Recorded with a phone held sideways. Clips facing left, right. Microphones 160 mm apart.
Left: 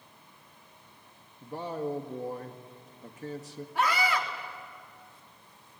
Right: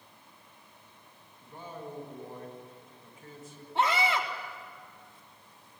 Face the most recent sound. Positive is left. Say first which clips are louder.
# right 1 dB
turn(degrees=-25)  # may be behind; listen again after turning